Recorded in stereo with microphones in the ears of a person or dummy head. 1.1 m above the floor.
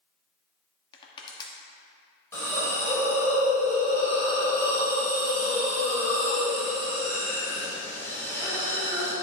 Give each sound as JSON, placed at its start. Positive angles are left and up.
{"t": 0.9, "sound": "crushing", "side_deg": 30, "distance_m": 1.1}
{"t": 2.3, "sound": "a hiss", "side_deg": 20, "distance_m": 3.0}